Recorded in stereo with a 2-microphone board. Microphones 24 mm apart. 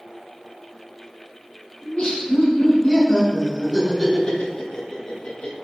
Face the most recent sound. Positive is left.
turn(degrees=55)  # may be behind; listen again after turning